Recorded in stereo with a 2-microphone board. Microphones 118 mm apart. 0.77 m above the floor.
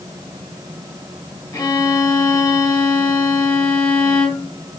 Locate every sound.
1.5 s a violin: 35° left (ahead or behind), 2.5 m